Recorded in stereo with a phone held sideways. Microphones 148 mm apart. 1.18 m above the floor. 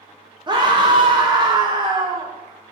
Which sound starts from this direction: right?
A scream, at 0.5 s.